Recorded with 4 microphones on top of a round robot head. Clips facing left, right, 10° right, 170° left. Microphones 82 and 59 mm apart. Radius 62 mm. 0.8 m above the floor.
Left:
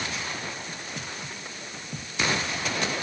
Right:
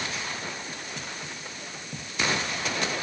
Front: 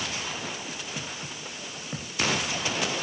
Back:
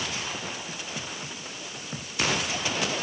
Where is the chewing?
I don't hear chewing.